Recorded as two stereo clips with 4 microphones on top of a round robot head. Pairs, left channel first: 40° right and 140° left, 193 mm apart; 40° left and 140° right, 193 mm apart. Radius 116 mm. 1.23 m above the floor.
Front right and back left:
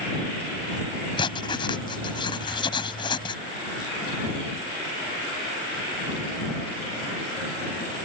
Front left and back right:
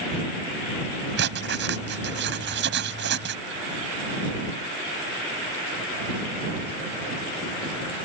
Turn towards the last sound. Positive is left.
turn(degrees=-105)